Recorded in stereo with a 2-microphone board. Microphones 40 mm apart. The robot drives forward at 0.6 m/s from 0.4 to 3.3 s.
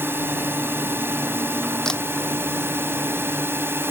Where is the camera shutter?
20° left (ahead or behind).